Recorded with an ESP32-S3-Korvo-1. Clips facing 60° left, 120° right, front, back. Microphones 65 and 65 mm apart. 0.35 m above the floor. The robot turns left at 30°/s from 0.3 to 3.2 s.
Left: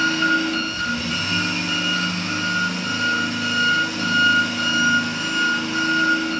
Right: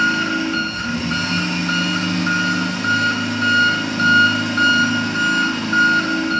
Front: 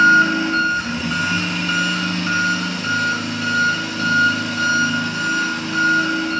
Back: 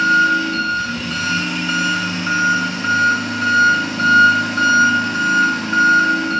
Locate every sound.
0.0 s an engine running: 60° right, 1.7 m; by 6.4 s 145° right, 1.7 m